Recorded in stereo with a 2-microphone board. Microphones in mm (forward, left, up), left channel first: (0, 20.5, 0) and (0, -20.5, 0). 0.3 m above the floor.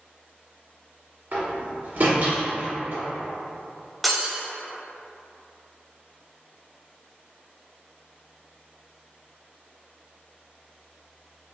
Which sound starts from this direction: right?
A door slam, at 1.3 s.